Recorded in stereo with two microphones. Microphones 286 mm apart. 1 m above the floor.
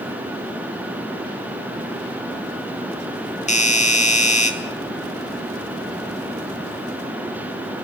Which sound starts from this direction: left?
A doorbell, at 3.5 s.